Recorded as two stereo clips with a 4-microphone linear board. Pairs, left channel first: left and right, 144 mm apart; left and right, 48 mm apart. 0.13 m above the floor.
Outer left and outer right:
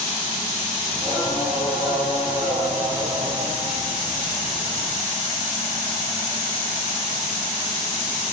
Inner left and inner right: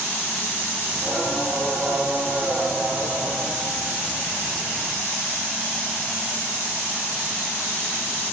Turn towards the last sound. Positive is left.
turn(degrees=-10)  # may be behind; listen again after turning